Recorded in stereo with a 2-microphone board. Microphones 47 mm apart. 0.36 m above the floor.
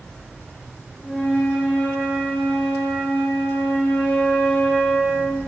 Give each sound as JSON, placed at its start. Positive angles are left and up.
{"t": 1.0, "sound": "a flute", "side_deg": 35, "distance_m": 1.0}